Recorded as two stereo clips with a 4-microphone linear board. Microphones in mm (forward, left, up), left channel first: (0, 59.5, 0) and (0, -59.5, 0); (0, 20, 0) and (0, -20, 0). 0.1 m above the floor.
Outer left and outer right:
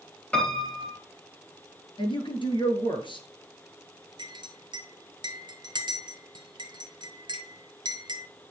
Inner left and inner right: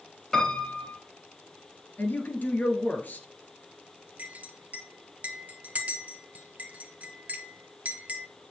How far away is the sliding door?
I don't hear a sliding door.